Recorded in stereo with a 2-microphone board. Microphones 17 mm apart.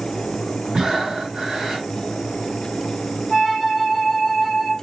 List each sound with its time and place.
0.7 s breathing: 50° right (ahead or behind), 1.0 m
3.3 s a flute: 40° right (ahead or behind), 1.4 m